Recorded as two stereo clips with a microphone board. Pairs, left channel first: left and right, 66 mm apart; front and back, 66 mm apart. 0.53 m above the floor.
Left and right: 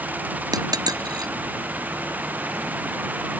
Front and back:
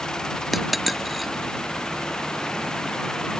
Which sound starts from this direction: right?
A dropped coin, at 0.5 s.